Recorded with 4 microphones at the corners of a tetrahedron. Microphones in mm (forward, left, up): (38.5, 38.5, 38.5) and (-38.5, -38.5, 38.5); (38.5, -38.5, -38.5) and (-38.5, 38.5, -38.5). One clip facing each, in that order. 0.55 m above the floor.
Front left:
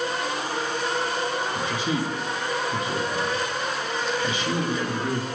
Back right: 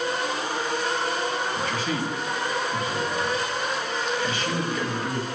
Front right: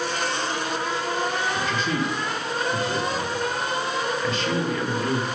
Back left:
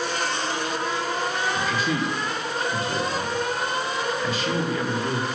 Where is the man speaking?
65° left, 1.1 m.